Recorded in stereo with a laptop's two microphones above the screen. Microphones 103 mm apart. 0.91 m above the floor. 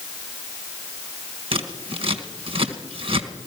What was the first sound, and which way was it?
Scissors, 60° right (ahead or behind).